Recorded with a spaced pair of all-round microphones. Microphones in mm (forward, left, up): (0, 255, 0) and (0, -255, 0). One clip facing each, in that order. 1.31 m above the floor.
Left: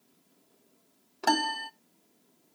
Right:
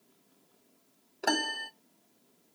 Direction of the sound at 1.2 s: 25° left (ahead or behind).